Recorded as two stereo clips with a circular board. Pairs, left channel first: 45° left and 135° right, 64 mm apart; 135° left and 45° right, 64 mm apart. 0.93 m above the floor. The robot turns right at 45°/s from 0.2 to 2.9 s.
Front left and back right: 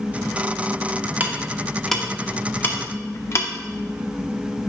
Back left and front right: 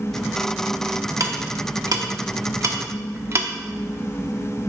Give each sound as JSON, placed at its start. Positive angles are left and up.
{"t": 1.2, "sound": "ticking", "azimuth_deg": -75, "distance_m": 0.8}